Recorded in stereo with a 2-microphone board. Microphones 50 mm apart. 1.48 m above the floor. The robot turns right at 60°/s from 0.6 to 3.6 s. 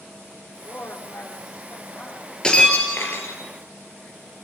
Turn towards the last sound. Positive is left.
turn(degrees=85)